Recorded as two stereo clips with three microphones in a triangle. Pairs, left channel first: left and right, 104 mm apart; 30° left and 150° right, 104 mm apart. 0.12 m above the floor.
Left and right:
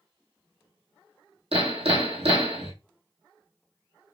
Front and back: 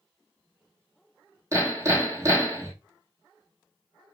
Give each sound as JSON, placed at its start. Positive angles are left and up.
{"t": 1.5, "sound": "hammering", "azimuth_deg": -90, "distance_m": 1.9}